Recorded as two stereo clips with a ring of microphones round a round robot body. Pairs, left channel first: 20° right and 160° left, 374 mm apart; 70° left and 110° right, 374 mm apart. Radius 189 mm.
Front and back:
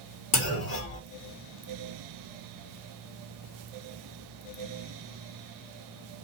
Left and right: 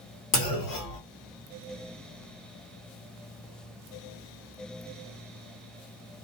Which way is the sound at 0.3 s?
35° left.